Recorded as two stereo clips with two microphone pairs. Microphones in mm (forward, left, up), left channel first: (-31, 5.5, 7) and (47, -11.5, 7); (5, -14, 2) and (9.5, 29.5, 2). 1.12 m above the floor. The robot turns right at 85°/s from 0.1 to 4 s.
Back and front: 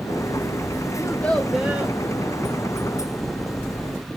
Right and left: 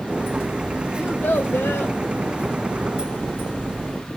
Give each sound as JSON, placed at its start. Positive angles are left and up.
{"t": 1.0, "sound": "a child speaking", "azimuth_deg": -145, "distance_m": 0.8}